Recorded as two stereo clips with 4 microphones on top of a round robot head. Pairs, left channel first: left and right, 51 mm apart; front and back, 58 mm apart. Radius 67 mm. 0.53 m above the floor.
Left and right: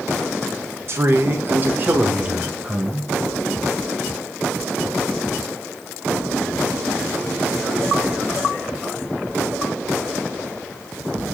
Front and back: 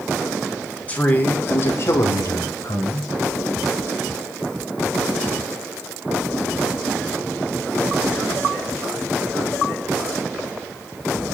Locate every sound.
0.9 s a man speaking: 65° right, 1.5 m; by 3.1 s 15° right, 2 m